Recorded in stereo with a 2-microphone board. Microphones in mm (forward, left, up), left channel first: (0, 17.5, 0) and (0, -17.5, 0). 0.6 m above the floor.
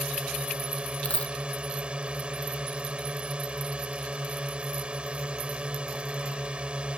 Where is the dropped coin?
40° left (ahead or behind).